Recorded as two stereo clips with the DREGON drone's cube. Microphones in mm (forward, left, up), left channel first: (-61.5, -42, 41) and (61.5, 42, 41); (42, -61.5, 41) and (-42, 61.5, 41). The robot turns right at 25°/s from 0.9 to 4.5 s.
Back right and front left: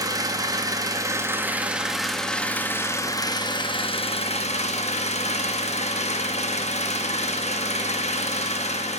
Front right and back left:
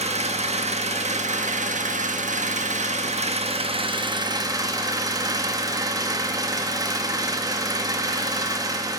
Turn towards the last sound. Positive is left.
turn(degrees=-175)